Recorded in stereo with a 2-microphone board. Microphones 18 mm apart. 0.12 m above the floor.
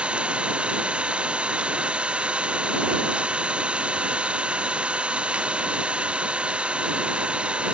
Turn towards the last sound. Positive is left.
turn(degrees=-80)